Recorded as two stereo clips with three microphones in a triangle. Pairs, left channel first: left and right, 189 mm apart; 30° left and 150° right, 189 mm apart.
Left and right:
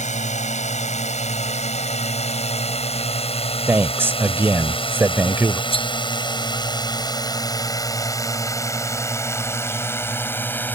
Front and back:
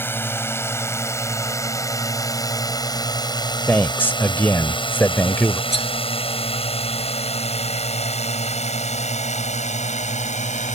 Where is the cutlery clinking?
35° left.